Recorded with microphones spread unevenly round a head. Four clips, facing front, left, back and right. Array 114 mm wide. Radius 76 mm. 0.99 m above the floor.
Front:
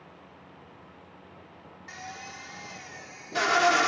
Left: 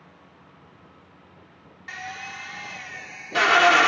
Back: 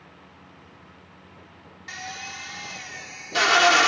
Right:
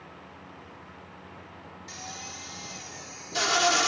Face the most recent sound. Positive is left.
turn(degrees=130)